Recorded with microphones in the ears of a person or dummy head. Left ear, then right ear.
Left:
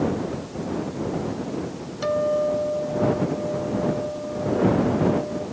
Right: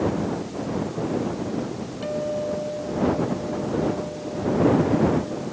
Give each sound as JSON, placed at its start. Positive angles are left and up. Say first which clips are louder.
{"t": 2.0, "sound": "a guitar", "louder": "left 5 dB", "side_deg": 50}